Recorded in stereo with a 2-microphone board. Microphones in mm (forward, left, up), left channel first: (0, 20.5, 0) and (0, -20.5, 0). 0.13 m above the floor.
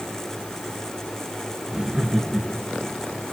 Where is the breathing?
No breathing in this recording.